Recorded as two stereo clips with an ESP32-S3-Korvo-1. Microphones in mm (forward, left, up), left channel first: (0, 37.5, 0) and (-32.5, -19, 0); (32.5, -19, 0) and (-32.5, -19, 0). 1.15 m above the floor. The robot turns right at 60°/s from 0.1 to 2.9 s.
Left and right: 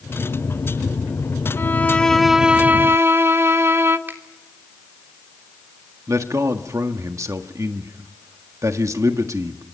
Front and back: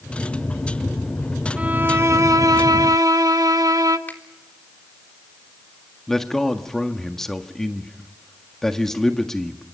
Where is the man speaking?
85° right, 1.6 m.